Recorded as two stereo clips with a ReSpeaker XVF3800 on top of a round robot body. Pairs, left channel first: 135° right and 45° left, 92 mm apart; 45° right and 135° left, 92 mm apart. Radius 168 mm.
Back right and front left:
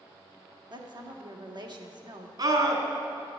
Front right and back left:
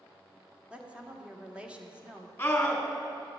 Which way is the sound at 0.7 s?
60° left.